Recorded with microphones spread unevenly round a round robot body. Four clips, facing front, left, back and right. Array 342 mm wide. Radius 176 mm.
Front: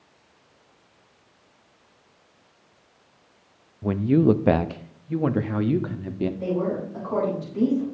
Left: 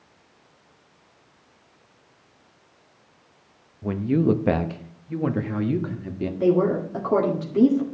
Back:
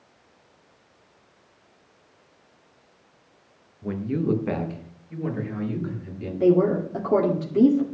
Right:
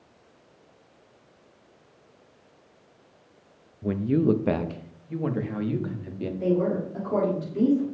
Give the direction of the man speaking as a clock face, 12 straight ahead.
12 o'clock.